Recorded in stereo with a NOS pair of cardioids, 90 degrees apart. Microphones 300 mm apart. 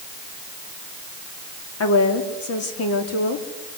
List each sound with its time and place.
1.8 s a woman speaking: 50° left, 3.5 m